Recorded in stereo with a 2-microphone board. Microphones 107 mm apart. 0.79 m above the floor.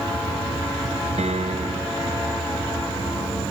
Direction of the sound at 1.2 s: 85° right.